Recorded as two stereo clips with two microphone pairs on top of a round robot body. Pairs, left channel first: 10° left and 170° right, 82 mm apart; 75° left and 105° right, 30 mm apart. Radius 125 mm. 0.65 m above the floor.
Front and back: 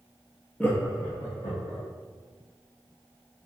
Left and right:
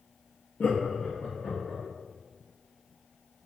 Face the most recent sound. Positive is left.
turn(degrees=35)